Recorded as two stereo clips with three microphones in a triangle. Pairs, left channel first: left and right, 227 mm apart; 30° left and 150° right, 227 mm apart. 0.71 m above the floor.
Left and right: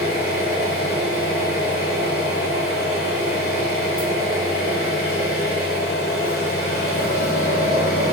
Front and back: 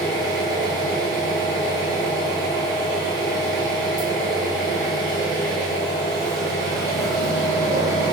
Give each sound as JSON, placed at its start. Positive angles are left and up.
{"t": 0.0, "sound": "an engine running", "azimuth_deg": 100, "distance_m": 1.1}